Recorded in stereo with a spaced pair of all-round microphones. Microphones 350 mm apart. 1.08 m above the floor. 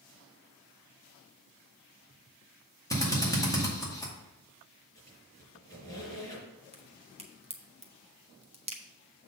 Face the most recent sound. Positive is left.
turn(degrees=-20)  # may be behind; listen again after turning